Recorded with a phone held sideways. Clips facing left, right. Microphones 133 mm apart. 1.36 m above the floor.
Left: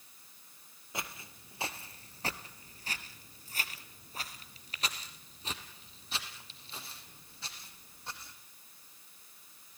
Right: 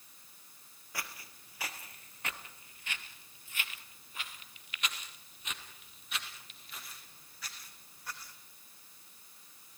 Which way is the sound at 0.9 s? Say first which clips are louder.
Left 2 dB; 20° left (ahead or behind).